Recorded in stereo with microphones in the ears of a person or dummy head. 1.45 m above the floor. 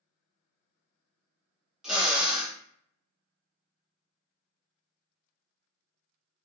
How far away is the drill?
About 0.9 m.